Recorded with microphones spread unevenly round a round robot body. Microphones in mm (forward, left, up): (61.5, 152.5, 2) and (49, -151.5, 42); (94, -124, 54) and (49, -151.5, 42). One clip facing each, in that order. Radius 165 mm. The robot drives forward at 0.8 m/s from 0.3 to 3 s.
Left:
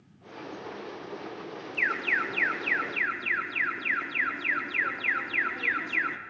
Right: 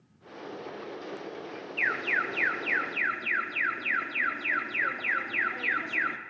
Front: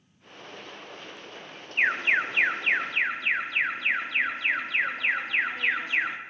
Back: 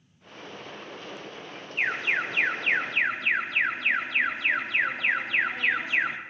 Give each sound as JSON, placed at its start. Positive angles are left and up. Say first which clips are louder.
{"t": 1.8, "sound": "an alarm", "louder": "right 1 dB, front 3 dB", "azimuth_deg": 35, "distance_m": 1.1}